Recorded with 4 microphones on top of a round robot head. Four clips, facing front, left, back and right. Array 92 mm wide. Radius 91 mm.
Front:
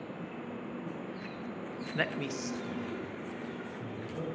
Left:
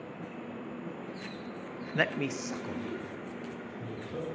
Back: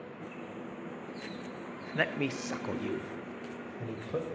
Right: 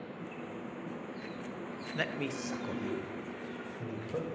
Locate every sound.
1.9 s a man speaking: 95° left, 0.6 m; by 4.3 s 165° right, 2.5 m